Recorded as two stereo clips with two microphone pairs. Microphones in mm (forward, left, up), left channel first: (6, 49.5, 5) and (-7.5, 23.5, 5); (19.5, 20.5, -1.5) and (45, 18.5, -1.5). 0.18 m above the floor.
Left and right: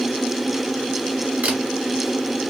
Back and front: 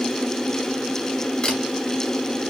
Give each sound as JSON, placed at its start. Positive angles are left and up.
{"t": 1.4, "sound": "a camera shutter", "azimuth_deg": -140, "distance_m": 1.5}